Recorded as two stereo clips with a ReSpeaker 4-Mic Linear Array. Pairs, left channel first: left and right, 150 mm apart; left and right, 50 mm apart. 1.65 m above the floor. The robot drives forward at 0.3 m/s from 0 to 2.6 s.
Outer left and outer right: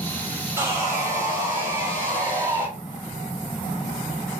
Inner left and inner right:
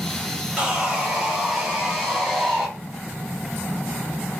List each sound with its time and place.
0.6 s sawing: 15° right (ahead or behind), 1.1 m